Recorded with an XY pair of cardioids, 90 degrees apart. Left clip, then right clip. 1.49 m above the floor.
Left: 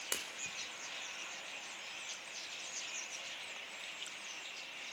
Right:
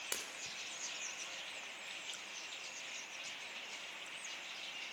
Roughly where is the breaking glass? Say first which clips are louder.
Left 5 dB; ahead.